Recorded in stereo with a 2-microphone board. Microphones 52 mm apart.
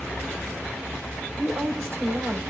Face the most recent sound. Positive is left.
turn(degrees=-50)  # may be behind; listen again after turning